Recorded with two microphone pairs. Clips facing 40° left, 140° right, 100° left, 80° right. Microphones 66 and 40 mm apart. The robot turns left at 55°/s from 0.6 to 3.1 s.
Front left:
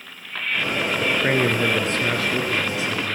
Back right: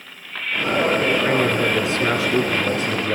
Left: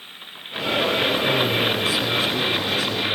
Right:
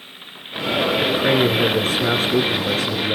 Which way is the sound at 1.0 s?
5° right.